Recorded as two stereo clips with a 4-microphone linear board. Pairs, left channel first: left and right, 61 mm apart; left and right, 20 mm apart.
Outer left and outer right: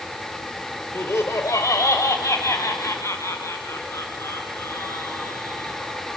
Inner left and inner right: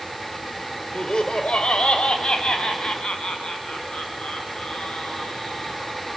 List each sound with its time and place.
0.9 s laughter: 50° left (ahead or behind), 1.3 m